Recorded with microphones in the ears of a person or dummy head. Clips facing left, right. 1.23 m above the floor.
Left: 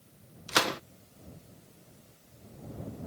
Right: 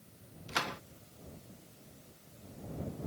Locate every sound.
0.5 s a gunshot: 60° left (ahead or behind)